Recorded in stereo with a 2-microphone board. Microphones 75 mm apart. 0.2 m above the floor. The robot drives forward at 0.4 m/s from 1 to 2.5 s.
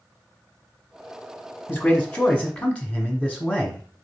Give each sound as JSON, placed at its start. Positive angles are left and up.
{"t": 1.7, "sound": "a man speaking", "side_deg": 20, "distance_m": 1.0}